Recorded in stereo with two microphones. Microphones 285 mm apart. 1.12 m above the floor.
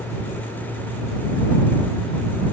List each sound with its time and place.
Only background noise.